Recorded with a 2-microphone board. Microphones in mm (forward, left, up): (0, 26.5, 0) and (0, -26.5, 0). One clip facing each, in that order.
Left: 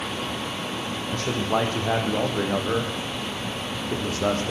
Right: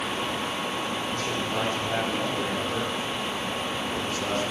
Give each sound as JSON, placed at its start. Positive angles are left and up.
{"t": 1.1, "sound": "a man speaking", "side_deg": 75, "distance_m": 6.0}